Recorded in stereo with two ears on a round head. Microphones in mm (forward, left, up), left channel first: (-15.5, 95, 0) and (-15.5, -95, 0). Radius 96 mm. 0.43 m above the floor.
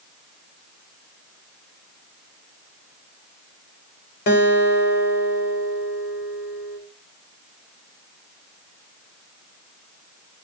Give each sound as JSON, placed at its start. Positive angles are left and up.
{"t": 4.3, "sound": "a guitar", "side_deg": 50, "distance_m": 1.6}